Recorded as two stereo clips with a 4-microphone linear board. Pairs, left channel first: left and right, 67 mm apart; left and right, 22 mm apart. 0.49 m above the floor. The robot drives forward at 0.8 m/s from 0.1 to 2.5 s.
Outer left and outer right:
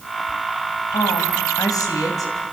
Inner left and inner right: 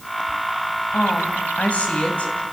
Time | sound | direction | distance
0.9 | a woman speaking | 70° left (ahead or behind) | 3.5 m